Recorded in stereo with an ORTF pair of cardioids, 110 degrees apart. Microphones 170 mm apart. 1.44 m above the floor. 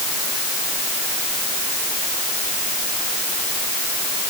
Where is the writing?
I don't hear writing.